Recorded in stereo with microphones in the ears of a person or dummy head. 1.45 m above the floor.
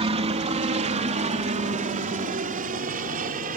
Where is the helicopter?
30° right (ahead or behind); by 3.6 s 45° right (ahead or behind).